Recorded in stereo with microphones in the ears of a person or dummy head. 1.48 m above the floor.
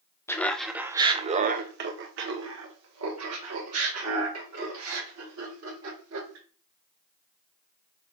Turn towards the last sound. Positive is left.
turn(degrees=-85)